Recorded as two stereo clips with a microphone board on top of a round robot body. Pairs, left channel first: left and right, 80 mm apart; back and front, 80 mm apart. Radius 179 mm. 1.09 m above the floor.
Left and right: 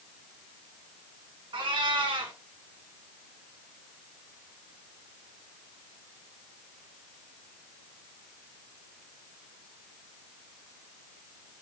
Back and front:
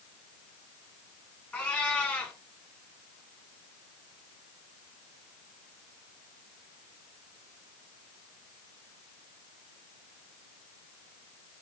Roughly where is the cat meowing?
Right.